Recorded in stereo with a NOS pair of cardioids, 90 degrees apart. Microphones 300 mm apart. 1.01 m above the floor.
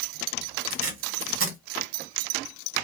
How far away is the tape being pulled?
About 1.6 m.